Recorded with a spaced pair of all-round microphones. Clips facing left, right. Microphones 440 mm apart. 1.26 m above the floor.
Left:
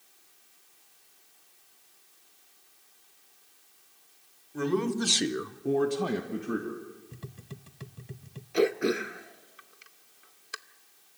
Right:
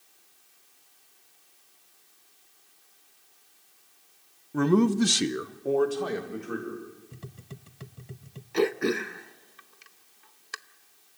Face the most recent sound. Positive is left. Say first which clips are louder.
# even
turn(degrees=-10)  # may be behind; listen again after turning